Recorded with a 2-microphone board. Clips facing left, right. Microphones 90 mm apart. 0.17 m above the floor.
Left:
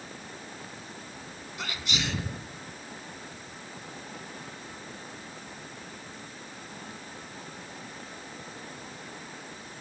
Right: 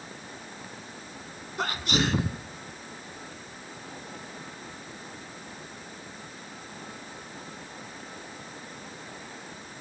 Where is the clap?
No clap in this recording.